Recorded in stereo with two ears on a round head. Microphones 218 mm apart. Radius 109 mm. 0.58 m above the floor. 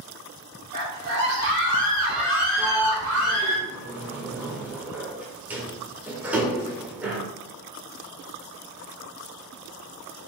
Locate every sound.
0.7 s a scream: 40° right (ahead or behind), 1.5 m; by 3.6 s 70° right (ahead or behind), 3 m
2.6 s a sliding door: 5° right (ahead or behind), 0.9 m